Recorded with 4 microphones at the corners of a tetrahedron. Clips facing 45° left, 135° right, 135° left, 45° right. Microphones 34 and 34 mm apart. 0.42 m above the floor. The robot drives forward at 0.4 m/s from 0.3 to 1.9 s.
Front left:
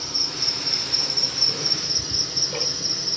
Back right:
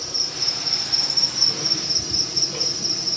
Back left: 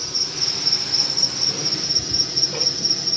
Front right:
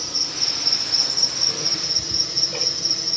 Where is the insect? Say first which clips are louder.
Even, even; 55° left, 2.5 m; by 3.2 s 80° left, 2 m.